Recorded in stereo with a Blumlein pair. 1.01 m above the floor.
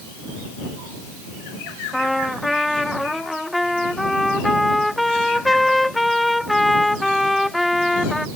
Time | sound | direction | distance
1.9 | a trumpet | 5° left | ?